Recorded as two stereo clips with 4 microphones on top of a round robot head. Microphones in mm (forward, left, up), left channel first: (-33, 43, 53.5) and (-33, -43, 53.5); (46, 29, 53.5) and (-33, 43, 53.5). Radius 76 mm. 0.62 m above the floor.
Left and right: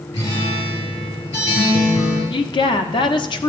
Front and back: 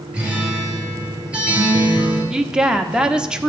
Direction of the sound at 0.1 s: 95° left.